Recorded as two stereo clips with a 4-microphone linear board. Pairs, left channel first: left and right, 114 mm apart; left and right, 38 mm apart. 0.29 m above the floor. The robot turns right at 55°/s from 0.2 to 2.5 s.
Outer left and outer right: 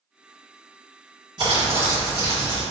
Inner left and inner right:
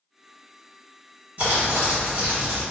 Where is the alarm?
I don't hear an alarm.